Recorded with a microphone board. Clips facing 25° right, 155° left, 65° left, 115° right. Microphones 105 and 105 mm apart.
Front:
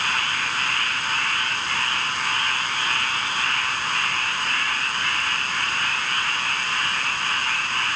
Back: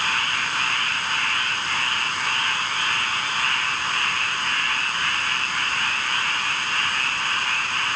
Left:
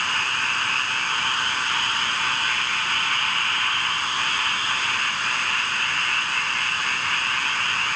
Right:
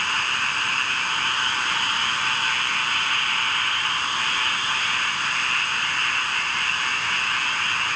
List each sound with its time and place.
Only background noise.